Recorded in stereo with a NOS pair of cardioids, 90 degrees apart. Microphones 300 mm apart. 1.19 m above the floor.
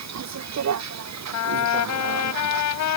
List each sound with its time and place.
0.0 s a vehicle: 60° right
1.3 s a trumpet: 70° left